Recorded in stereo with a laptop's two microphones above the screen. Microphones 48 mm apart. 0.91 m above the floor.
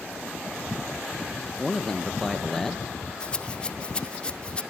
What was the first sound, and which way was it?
A man speaking, 10° left (ahead or behind).